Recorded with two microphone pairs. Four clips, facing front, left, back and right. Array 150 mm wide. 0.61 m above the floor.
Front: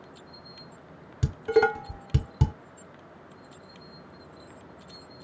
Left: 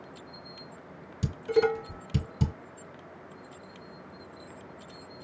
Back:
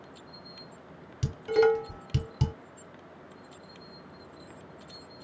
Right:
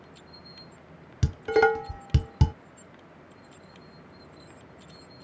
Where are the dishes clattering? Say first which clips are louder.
Right 3 dB, front 1 dB; 60° right, 1.2 m.